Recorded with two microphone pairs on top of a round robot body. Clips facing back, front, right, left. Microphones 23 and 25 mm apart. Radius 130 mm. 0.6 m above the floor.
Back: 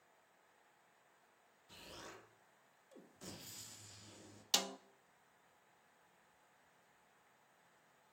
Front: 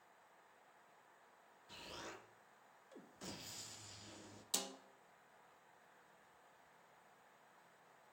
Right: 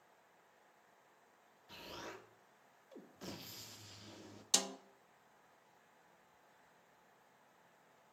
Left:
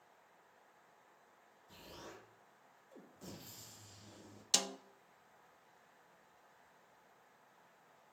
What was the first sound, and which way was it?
An explosion, 70° right.